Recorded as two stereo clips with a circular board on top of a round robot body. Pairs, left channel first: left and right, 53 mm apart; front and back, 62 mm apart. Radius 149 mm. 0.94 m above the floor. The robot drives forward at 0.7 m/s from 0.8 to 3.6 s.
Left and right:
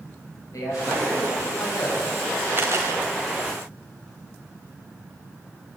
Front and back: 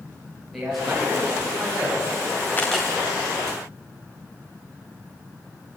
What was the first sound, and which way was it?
A man speaking, 95° left.